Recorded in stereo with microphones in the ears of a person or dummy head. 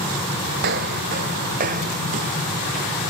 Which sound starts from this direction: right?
Footsteps, at 0.6 s.